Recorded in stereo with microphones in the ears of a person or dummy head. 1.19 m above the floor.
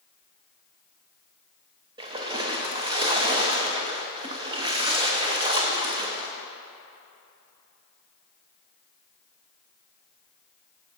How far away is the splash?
About 0.7 m.